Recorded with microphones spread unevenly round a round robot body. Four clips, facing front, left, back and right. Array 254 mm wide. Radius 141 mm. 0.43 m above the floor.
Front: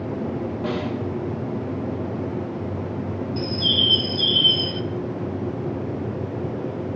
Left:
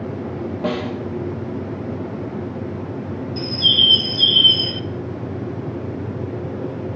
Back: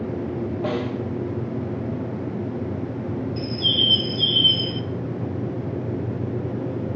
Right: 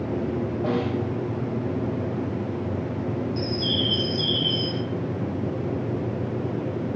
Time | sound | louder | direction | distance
0.6 | a snare drum | left 2 dB, back 1 dB | 100° left | 7 m
3.4 | a bird | left 1 dB, front 1 dB | 25° left | 1.1 m